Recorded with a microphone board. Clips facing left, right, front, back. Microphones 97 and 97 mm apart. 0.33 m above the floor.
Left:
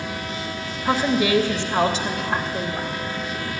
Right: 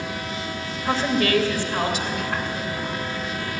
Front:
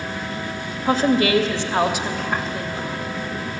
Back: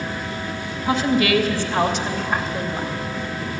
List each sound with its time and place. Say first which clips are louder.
0.8 s a woman speaking: left 2 dB, front 1 dB; 5° left, 1.2 m; by 2.9 s 115° left, 1.4 m